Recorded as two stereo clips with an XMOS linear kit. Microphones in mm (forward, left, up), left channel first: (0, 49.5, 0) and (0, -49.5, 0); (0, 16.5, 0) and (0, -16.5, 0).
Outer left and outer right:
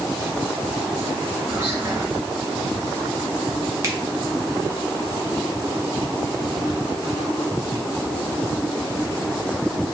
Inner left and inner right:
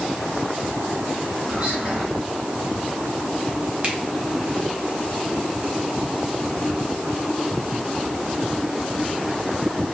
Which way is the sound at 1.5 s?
20° right (ahead or behind).